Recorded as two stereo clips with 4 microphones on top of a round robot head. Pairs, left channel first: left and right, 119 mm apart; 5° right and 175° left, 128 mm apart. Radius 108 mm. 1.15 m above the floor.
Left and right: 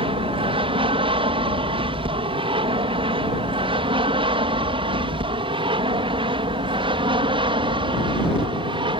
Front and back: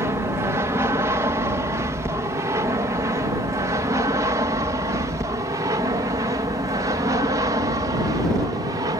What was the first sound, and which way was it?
An aircraft, 120° right.